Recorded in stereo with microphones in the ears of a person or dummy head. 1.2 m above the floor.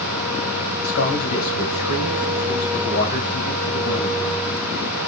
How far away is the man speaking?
About 6 m.